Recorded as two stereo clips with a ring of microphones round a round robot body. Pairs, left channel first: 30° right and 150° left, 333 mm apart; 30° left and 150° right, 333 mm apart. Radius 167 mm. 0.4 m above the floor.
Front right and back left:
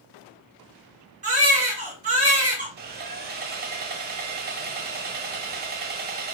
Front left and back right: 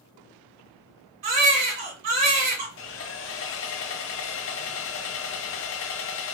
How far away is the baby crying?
About 1.7 m.